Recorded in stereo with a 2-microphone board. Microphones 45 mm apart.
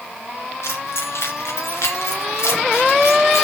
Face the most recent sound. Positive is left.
turn(degrees=80)